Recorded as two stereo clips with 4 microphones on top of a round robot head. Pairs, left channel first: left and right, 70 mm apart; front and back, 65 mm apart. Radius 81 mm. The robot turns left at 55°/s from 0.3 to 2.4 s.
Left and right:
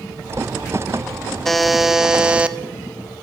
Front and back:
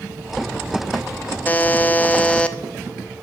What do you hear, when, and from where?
1.4 s a buzzer: 10° left, 0.7 m; by 2.6 s 45° right, 0.7 m